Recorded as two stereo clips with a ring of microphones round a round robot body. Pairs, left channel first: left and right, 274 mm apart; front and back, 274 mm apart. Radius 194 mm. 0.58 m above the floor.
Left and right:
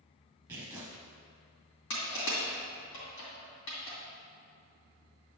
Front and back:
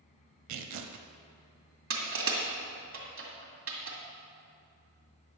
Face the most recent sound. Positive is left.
turn(degrees=140)